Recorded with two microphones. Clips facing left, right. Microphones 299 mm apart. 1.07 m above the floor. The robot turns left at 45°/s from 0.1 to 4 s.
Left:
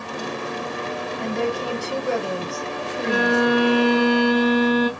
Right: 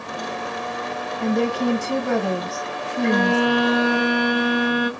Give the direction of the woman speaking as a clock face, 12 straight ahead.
1 o'clock.